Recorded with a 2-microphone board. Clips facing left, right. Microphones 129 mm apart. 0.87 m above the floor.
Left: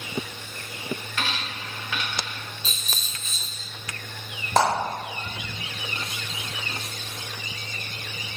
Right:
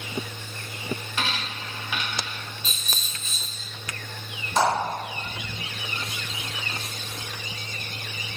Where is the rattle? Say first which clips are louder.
Even; 65° right (ahead or behind), 1.6 m.